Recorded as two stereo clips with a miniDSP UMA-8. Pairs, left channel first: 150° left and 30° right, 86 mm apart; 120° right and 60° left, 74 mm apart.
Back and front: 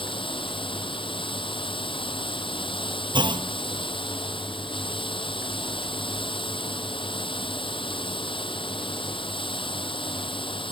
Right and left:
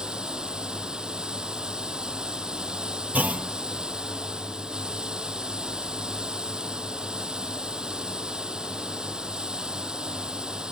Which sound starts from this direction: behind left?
Running water, at 0.0 s.